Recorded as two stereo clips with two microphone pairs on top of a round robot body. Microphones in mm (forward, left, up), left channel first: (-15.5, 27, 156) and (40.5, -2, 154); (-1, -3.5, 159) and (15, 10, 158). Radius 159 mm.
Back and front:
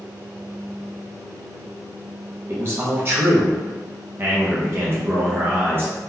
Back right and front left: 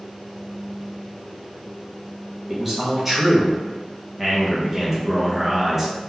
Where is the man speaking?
30° right, 0.9 m.